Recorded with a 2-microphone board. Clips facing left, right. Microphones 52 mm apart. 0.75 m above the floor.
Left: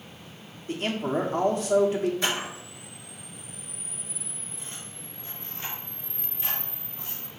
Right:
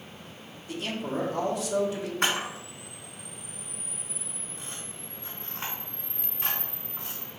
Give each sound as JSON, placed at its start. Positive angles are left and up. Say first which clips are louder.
{"t": 0.7, "sound": "a man speaking", "louder": "left 4 dB", "side_deg": 40, "distance_m": 1.5}
{"t": 2.2, "sound": "a camera shutter", "louder": "right 1 dB", "side_deg": -55, "distance_m": 3.5}